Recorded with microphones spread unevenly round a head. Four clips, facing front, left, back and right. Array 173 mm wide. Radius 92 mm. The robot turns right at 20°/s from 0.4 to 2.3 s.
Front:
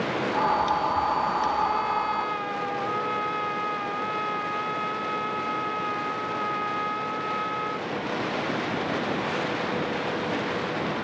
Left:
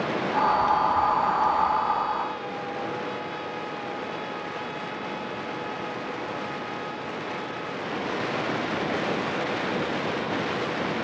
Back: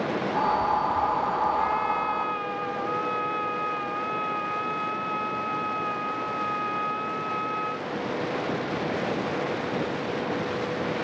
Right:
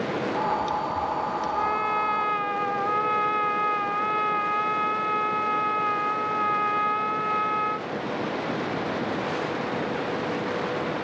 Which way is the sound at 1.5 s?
90° right.